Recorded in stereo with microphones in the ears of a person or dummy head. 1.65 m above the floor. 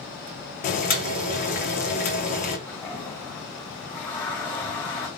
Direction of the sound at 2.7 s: 5° left (ahead or behind).